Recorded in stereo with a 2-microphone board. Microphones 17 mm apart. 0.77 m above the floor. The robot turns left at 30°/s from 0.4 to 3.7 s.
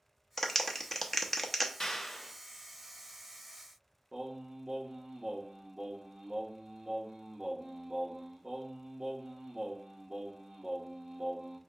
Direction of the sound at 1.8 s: 35° left (ahead or behind).